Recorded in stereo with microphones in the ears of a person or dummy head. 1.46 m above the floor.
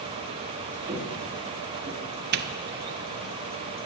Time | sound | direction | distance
0.9 | footsteps | 40° right (ahead or behind) | 6 m
2.3 | a doorbell | 55° right (ahead or behind) | 0.7 m